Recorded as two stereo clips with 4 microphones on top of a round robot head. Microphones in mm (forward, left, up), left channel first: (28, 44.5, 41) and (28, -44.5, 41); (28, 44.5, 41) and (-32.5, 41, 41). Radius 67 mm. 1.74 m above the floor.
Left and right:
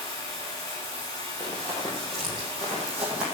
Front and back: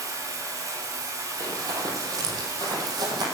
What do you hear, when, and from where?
0.0 s running water: 155° left, 3.5 m
1.4 s running footsteps: 170° left, 4 m; by 3.2 s 170° right, 4.5 m